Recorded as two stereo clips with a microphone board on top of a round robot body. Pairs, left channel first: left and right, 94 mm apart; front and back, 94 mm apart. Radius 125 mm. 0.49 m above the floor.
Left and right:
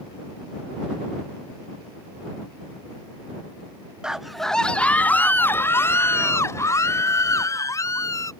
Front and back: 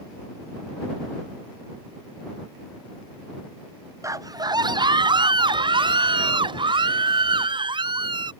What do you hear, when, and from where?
4.0 s a scream: 165° right; by 8.3 s 145° left